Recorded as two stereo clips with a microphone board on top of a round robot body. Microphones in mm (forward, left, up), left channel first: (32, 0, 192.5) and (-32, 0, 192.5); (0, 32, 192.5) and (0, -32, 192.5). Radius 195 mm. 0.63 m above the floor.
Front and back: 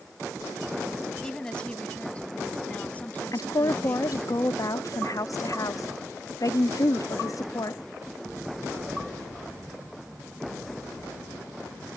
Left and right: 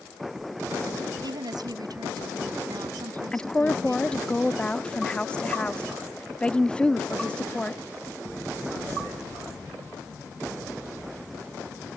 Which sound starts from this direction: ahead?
A woman speaking, at 3.3 s.